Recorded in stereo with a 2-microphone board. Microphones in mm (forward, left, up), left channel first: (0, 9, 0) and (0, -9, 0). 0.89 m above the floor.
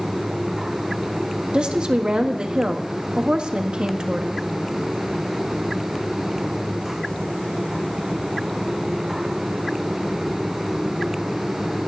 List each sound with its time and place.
1.5 s a woman speaking: 60° right (ahead or behind), 1.5 m